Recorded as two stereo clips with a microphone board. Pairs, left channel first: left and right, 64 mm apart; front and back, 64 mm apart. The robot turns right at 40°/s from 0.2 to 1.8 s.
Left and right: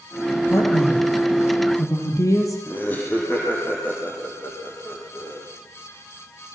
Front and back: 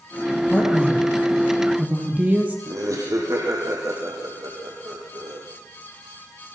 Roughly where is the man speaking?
Ahead left.